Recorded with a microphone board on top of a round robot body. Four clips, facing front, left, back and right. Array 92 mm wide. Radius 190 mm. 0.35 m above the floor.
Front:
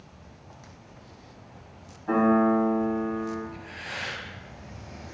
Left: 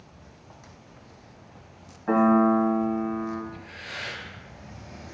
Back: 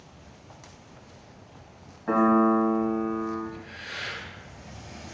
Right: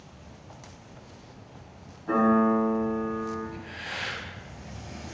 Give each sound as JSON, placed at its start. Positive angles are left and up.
{"t": 2.1, "sound": "a piano", "azimuth_deg": 130, "distance_m": 2.0}
{"t": 3.5, "sound": "breathing", "azimuth_deg": -55, "distance_m": 2.0}